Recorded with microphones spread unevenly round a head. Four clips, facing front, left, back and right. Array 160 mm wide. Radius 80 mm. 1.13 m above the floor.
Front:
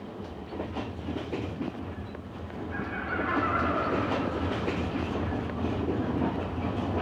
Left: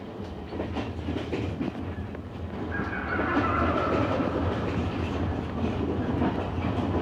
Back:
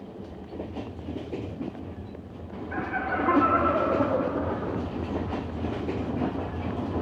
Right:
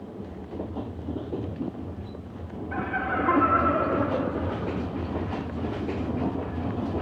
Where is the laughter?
140° right, 1.4 m; by 4.8 s straight behind, 2.0 m.